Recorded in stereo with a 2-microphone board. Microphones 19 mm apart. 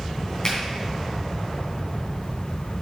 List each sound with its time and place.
0.4 s a finger snap: 35° left (ahead or behind), 3 m